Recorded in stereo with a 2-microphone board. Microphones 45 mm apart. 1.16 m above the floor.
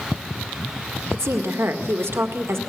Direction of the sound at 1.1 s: 70° right (ahead or behind).